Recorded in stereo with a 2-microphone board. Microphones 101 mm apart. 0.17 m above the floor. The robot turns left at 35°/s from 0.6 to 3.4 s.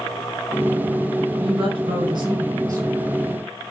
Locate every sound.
1.4 s a woman speaking: 85° right, 1.9 m; by 3.0 s 140° right, 1.9 m